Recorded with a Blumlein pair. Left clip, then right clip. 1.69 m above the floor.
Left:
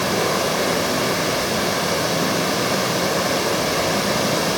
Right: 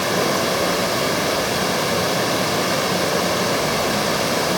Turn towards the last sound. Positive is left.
turn(degrees=-5)